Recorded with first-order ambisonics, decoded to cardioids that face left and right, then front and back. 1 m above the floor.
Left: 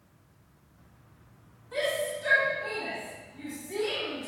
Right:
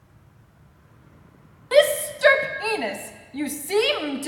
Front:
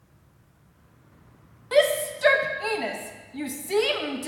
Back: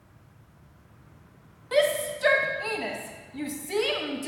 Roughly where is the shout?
Right.